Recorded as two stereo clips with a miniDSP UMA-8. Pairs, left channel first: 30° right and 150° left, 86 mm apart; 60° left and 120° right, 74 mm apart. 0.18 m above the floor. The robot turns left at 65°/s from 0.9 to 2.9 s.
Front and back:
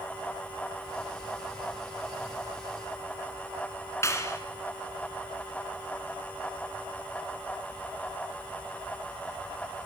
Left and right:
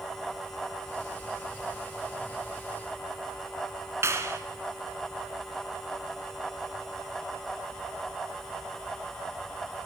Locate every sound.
4.0 s a clap: 80° right, 2 m